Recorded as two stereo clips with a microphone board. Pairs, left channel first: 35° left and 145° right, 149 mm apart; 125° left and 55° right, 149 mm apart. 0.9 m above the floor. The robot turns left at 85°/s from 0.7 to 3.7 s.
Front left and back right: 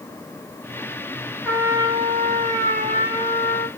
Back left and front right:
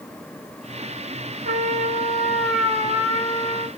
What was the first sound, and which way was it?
A trumpet, 55° right.